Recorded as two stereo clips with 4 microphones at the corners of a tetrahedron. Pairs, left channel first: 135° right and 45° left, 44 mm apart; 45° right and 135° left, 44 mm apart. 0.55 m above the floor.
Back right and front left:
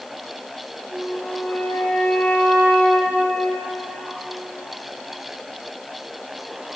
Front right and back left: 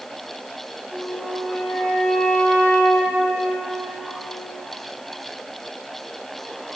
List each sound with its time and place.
0.9 s a flute: 95° right, 3 m